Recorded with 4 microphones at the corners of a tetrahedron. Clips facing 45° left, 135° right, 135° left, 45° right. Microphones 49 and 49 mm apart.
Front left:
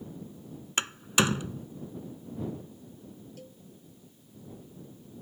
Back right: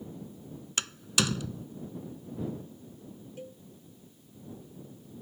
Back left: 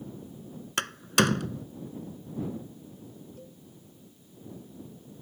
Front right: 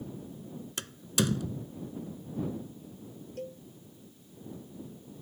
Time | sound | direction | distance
0.8 | a door slam | 105° left | ?
3.4 | a cowbell | 70° right | ?